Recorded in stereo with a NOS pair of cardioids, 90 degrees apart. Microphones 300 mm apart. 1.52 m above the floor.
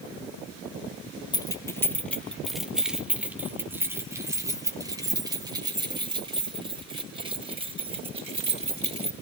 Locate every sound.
1.3 s keys jangling: 15° left, 1.7 m; by 9.1 s 20° right, 6.5 m